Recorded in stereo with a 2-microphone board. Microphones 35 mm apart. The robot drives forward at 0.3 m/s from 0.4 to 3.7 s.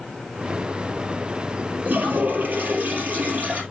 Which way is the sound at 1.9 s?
55° right (ahead or behind).